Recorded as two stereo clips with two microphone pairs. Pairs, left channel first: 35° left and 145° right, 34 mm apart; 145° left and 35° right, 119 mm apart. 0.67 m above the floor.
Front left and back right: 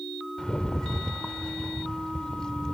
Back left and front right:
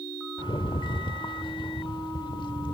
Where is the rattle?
100° left, 0.8 m.